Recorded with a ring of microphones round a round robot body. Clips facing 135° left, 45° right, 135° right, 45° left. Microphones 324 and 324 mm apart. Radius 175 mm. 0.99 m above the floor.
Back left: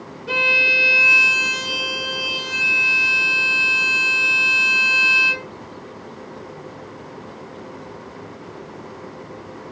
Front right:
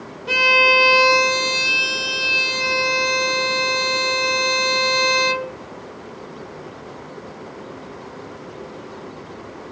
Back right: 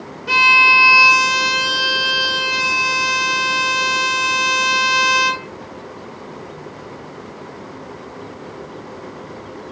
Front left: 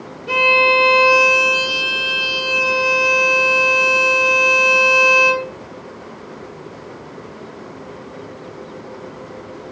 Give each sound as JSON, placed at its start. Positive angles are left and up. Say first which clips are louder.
{"t": 0.3, "sound": "a violin", "louder": "front right 6 dB, front left 10 dB", "azimuth_deg": -115, "distance_m": 0.6}